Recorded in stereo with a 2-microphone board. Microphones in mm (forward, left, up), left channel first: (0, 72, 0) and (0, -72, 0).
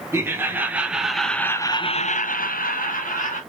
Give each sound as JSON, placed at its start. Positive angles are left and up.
{"t": 0.1, "sound": "laughter", "side_deg": -20, "distance_m": 1.5}